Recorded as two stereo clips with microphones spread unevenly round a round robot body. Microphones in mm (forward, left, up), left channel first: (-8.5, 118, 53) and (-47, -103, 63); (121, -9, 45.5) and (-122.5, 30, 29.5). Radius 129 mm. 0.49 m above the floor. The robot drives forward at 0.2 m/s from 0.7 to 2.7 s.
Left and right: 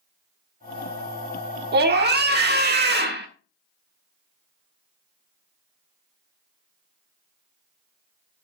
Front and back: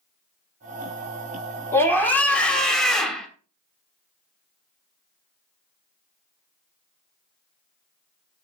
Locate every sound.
1.7 s a scream: 90° right, 1.6 m; by 3.3 s 100° right, 1.6 m